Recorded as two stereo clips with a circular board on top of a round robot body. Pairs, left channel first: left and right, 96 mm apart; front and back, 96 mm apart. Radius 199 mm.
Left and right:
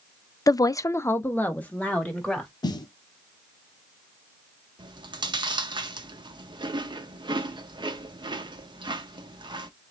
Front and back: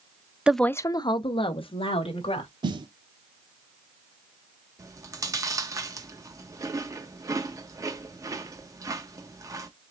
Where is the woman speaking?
110° left, 0.6 m; by 2.5 s 10° left, 2 m.